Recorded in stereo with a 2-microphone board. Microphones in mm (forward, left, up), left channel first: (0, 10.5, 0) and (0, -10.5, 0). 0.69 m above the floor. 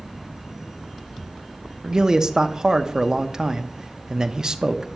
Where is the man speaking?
30° right (ahead or behind), 0.7 m.